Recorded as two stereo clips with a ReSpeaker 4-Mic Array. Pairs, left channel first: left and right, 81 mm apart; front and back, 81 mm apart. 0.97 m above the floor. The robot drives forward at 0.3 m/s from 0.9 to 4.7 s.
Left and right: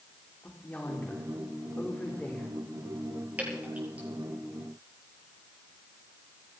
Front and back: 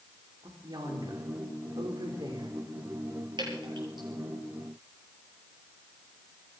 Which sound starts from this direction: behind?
Dripping, at 3.4 s.